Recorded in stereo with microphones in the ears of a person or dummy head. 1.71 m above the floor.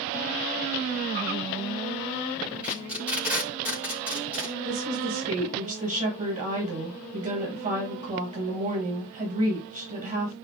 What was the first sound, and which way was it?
Tape being pulled, 10° right (ahead or behind).